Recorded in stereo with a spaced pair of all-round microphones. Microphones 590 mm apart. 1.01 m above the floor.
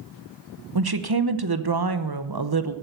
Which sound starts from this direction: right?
A woman speaking, at 0.8 s.